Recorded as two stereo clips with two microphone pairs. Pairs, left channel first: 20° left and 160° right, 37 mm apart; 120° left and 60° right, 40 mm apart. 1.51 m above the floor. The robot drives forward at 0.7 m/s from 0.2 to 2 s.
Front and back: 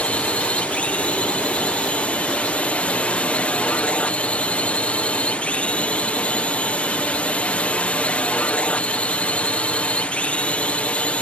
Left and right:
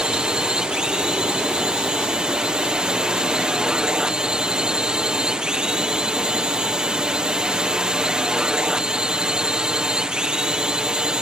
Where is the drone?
Straight ahead.